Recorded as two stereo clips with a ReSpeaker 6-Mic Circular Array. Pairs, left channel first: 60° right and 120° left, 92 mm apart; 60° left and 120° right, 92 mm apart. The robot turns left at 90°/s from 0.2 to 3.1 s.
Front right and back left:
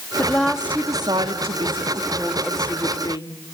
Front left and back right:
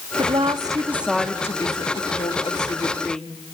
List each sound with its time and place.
0.2 s a woman speaking: 125° right, 2 m; by 3.4 s 25° right, 2 m